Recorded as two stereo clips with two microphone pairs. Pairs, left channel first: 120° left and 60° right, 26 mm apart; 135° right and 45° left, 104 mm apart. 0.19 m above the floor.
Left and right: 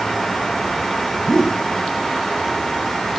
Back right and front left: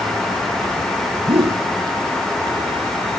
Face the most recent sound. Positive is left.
turn(degrees=50)